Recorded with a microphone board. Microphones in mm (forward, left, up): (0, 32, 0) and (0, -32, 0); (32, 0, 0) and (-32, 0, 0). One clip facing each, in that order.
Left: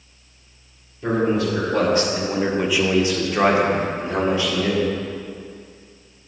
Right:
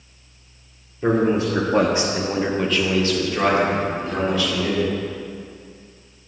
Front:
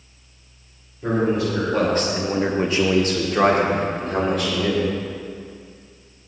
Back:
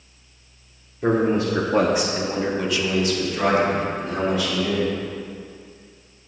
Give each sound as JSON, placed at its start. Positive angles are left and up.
{"t": 1.0, "sound": "a man speaking", "azimuth_deg": -140, "distance_m": 2.0}